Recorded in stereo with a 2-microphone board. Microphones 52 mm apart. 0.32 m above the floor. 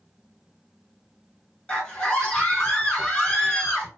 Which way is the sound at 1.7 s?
20° left (ahead or behind).